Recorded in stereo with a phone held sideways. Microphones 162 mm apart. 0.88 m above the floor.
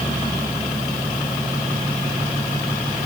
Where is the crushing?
No crushing in this recording.